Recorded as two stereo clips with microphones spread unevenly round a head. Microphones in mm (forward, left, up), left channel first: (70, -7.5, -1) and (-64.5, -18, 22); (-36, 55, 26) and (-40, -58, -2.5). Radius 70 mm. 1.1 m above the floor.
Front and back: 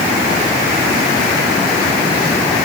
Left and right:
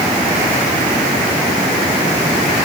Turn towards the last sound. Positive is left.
No sound to turn to.